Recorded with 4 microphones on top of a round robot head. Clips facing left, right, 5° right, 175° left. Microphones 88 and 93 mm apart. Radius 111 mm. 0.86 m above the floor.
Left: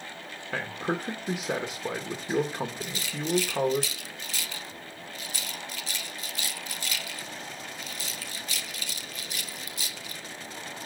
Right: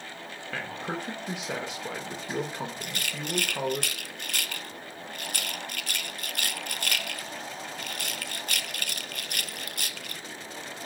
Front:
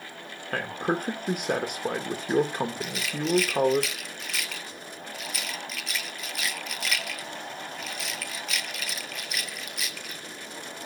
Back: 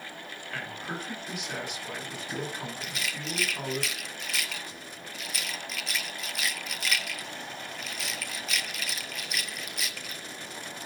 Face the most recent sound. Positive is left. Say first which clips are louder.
# left 2 dB, front 7 dB
turn(degrees=-95)